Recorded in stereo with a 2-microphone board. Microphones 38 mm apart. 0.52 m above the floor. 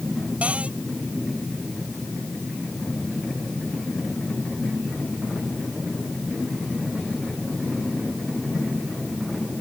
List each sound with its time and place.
0.4 s a cupboard door: 35° right (ahead or behind)